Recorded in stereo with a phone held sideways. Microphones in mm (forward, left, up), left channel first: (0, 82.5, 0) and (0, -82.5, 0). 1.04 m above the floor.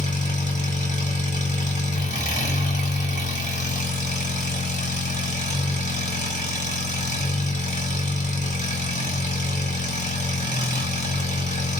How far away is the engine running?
About 1.6 m.